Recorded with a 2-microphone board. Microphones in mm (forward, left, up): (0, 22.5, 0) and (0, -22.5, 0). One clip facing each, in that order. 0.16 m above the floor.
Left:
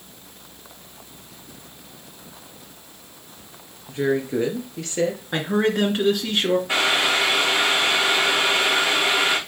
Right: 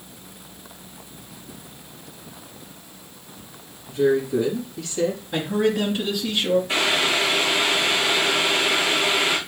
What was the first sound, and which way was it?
A woman speaking, 40° left (ahead or behind).